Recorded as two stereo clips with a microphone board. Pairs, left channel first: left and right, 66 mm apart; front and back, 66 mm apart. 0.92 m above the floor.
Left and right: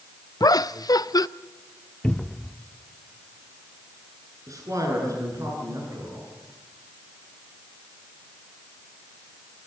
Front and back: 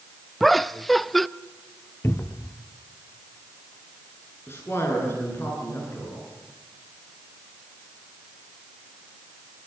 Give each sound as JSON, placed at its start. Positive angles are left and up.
{"t": 0.4, "sound": "laughter", "azimuth_deg": 90, "distance_m": 0.5}
{"t": 2.0, "sound": "a cupboard door", "azimuth_deg": 20, "distance_m": 0.6}
{"t": 4.5, "sound": "a man speaking", "azimuth_deg": -55, "distance_m": 10.0}